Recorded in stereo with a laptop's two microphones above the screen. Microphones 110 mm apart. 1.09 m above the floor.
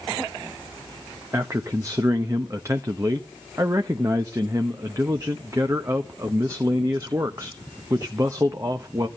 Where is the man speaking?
30° right (ahead or behind), 1.0 m.